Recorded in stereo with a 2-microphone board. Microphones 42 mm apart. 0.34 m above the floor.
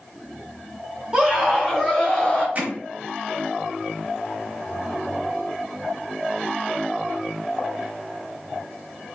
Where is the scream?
25° right (ahead or behind), 1.4 m; by 2.5 s 15° left (ahead or behind), 1.5 m.